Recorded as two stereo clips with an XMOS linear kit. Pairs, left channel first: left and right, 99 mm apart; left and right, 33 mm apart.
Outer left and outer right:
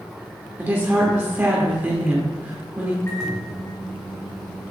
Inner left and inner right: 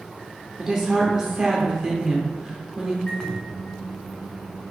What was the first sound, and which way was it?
A woman speaking, 20° right (ahead or behind).